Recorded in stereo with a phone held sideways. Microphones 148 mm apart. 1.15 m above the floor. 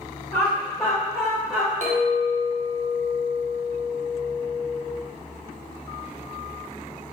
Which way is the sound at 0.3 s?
20° left (ahead or behind).